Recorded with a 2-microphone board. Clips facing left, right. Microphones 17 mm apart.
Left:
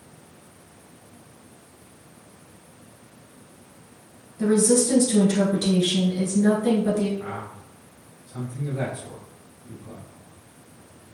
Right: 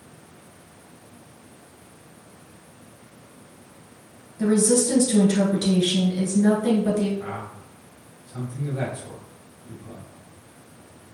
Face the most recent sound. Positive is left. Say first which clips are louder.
# right 1 dB
turn(degrees=-30)  # may be behind; listen again after turning